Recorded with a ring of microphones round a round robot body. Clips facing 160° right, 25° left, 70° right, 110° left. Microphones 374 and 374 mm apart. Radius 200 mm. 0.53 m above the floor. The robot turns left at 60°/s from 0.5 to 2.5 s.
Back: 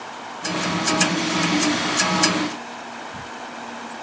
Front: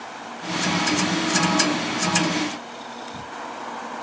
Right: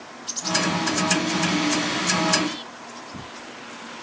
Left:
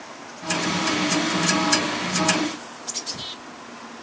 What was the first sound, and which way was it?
Only background noise.